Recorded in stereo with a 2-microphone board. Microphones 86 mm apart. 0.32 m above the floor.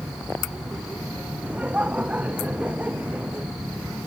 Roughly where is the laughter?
Centre.